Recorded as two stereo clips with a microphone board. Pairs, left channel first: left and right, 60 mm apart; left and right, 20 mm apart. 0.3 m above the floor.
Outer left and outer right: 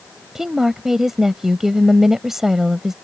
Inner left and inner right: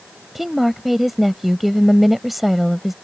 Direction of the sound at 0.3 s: 5° right (ahead or behind).